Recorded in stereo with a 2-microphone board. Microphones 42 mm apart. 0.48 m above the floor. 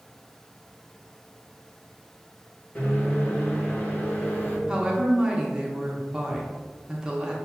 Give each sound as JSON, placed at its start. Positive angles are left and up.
{"t": 2.8, "sound": "a microwave", "side_deg": 35, "distance_m": 1.0}
{"t": 4.7, "sound": "a woman speaking", "side_deg": -15, "distance_m": 0.7}